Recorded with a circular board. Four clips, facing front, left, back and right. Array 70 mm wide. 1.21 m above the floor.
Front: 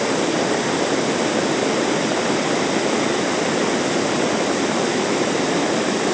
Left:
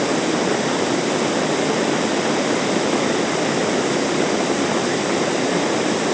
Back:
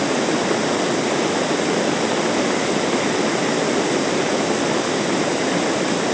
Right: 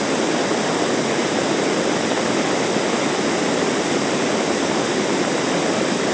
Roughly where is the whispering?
I don't hear whispering.